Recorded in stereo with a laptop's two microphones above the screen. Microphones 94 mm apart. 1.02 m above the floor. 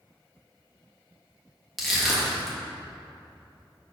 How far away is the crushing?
About 1.5 m.